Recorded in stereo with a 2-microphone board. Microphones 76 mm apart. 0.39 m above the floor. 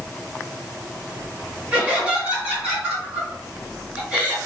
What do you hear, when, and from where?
1.7 s laughter: 15° right (ahead or behind), 1.7 m